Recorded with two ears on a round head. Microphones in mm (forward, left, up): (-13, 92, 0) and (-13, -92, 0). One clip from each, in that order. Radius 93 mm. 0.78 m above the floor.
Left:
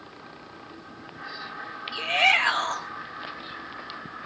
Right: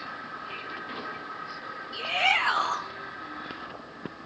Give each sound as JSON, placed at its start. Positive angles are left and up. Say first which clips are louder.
{"t": 1.9, "sound": "a shout", "louder": "left 4 dB", "side_deg": 60, "distance_m": 1.9}